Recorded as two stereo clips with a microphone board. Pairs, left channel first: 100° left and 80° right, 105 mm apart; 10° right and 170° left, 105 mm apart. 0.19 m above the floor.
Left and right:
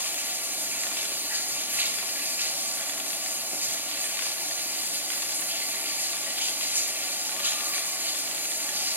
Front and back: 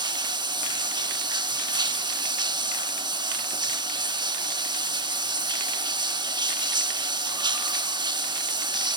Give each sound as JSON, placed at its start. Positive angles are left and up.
{"t": 0.0, "sound": "running water", "azimuth_deg": -150, "distance_m": 1.9}